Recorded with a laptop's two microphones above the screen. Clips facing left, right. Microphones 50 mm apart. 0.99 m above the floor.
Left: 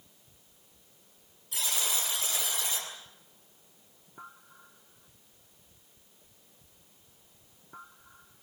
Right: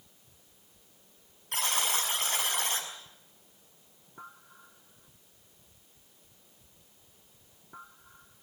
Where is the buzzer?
55° right (ahead or behind), 6 m.